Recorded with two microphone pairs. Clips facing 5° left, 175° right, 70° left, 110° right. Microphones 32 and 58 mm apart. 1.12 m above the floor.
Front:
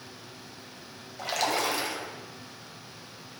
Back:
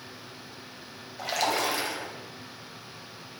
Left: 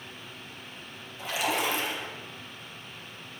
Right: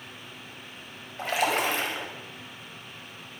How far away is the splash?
About 3 m.